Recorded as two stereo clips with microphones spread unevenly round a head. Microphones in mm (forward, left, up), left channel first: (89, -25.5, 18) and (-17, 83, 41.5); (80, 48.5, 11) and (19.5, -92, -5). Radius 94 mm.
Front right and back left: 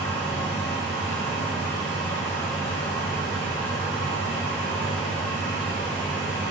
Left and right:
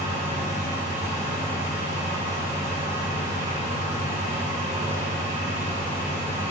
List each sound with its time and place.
0.0 s a fan: 75° right, 1.0 m